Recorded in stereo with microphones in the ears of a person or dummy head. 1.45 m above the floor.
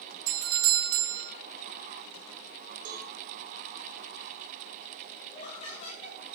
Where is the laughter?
40° left (ahead or behind), 1.8 m.